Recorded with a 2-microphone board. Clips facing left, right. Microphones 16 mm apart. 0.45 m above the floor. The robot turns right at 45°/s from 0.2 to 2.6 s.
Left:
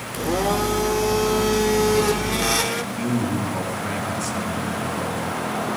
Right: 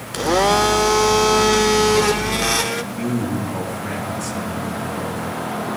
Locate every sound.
0.1 s a blender: 125° right, 0.6 m; by 2.8 s 15° right, 0.6 m
2.9 s a man speaking: centre (ahead or behind), 3.5 m